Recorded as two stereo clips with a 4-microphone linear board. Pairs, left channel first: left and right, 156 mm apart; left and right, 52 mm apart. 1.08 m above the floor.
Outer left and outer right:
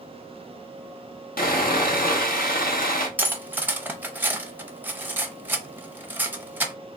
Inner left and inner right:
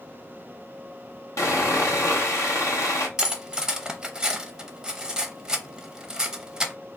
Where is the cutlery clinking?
15° right (ahead or behind), 0.6 m.